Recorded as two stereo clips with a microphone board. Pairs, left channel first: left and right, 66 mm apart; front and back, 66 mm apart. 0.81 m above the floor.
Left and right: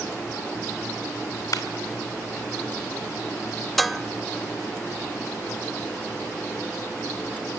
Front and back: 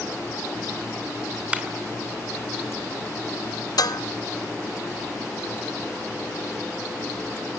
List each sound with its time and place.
1.5 s a clap: 110° left, 2.5 m
3.8 s dishes clattering: straight ahead, 0.7 m